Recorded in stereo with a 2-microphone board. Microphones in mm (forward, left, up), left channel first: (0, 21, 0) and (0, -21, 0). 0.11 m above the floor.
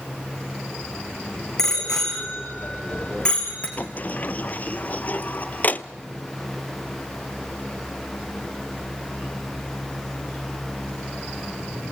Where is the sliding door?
40° left (ahead or behind), 0.5 m.